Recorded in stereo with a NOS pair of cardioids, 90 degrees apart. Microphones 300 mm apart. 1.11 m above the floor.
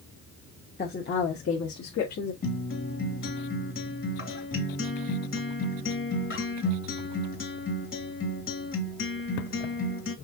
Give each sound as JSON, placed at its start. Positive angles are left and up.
{"t": 0.8, "sound": "a woman speaking", "azimuth_deg": 30, "distance_m": 1.3}
{"t": 2.4, "sound": "a guitar", "azimuth_deg": 40, "distance_m": 2.5}